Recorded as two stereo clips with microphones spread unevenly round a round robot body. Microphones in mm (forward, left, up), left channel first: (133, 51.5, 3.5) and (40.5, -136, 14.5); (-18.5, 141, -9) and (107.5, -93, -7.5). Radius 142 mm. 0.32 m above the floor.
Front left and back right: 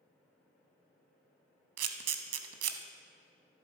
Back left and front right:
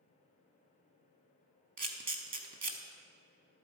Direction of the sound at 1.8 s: 125° right.